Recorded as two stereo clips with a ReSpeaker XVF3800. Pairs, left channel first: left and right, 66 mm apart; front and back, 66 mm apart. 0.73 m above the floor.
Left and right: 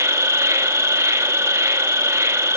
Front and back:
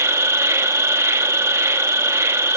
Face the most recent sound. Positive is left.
turn(degrees=-135)